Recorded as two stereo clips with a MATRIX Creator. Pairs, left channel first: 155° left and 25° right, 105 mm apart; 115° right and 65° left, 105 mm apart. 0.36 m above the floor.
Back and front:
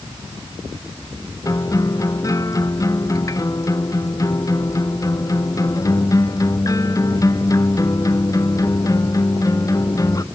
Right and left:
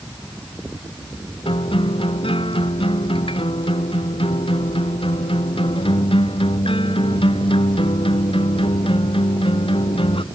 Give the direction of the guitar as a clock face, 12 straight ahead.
5 o'clock.